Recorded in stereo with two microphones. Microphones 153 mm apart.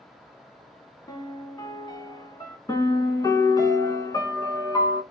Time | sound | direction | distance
1.1 | a piano | 30° left (ahead or behind) | 0.6 m
2.7 | a piano | 25° left (ahead or behind) | 0.7 m